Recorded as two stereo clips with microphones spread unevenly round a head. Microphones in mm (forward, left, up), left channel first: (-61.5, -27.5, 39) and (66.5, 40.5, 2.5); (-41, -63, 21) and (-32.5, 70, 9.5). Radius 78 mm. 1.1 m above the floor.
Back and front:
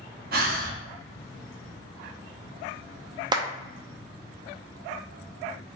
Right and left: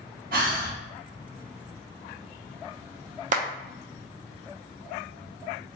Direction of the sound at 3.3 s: 75° left.